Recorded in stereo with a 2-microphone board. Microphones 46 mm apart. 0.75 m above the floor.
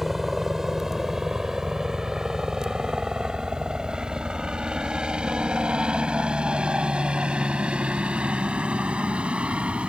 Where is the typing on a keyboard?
I don't hear typing on a keyboard.